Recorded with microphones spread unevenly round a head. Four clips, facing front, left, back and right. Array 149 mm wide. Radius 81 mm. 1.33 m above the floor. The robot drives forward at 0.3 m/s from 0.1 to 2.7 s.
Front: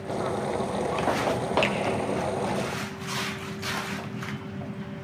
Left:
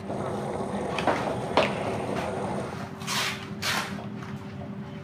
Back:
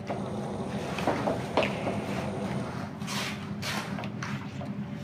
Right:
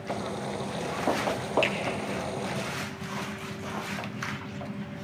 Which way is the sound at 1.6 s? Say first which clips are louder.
Left 2 dB, front 4 dB; 40° left.